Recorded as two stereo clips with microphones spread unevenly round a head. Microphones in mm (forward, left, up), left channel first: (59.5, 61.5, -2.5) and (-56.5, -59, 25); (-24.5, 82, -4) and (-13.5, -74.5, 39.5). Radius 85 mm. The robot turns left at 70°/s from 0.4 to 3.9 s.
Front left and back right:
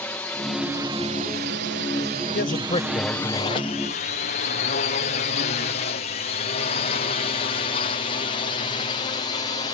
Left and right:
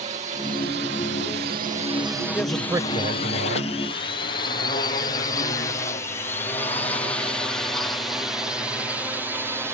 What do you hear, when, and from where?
0.0 s a drone: 30° right; by 9.8 s straight ahead
2.3 s a man speaking: 15° left; by 3.7 s 85° right